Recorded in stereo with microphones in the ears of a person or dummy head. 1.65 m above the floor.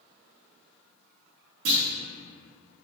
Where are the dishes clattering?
I don't hear dishes clattering.